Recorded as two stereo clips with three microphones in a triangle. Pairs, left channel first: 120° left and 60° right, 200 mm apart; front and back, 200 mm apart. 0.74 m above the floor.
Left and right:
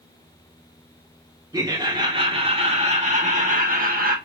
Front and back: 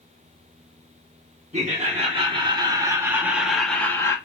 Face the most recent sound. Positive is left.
turn(degrees=-70)